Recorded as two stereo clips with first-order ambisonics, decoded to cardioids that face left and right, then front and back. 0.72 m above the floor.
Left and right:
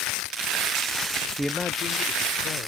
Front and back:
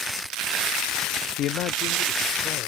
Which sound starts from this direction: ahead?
A man speaking, at 1.4 s.